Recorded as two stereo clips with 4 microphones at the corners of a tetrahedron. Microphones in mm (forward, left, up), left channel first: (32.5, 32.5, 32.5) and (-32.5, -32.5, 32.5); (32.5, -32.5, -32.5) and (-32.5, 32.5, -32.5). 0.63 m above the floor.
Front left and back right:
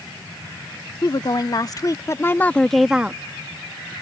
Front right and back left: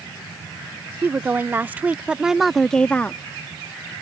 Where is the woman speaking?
75° left; by 3.2 s 85° right.